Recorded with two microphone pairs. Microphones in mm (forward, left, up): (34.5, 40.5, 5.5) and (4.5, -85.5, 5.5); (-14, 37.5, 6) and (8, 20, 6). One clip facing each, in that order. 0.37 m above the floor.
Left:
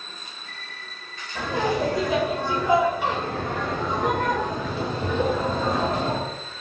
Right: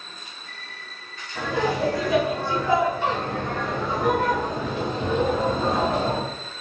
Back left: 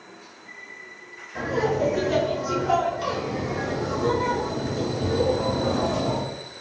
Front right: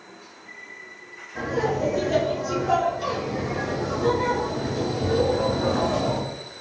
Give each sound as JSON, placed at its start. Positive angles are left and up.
{"t": 1.4, "sound": "laughter", "azimuth_deg": 135, "distance_m": 1.6}